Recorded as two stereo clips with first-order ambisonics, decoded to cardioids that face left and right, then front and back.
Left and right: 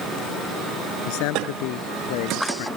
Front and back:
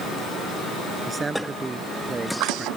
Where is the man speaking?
100° left.